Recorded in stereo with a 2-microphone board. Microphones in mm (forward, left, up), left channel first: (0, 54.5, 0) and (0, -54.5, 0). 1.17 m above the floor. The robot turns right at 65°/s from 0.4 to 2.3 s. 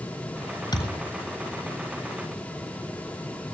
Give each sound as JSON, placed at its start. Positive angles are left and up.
{"t": 0.7, "sound": "a thud", "side_deg": 40, "distance_m": 7.0}